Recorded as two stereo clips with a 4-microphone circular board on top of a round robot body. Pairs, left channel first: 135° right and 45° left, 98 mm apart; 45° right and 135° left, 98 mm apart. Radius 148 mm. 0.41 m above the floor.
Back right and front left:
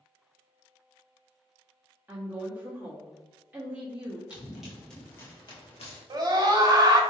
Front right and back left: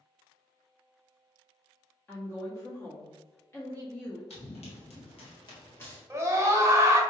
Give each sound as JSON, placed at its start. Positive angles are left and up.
{"t": 2.1, "sound": "a woman speaking", "azimuth_deg": -5, "distance_m": 1.2}
{"t": 4.3, "sound": "running footsteps", "azimuth_deg": -35, "distance_m": 1.5}
{"t": 6.1, "sound": "a scream", "azimuth_deg": 80, "distance_m": 1.2}